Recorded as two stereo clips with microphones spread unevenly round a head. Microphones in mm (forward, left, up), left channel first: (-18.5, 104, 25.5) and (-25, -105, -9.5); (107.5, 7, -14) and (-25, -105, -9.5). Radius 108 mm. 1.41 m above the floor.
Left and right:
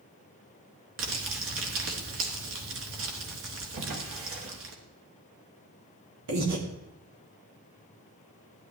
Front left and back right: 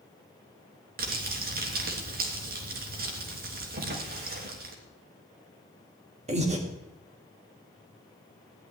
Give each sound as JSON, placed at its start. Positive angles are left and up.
{"t": 1.0, "sound": "crumpling", "azimuth_deg": -115, "distance_m": 3.0}
{"t": 3.8, "sound": "a drawer", "azimuth_deg": -115, "distance_m": 3.0}
{"t": 6.3, "sound": "breathing", "azimuth_deg": -90, "distance_m": 2.5}